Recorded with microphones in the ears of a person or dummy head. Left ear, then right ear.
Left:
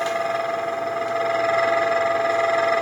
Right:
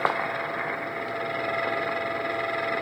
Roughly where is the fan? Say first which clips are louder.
Left 4 dB; left.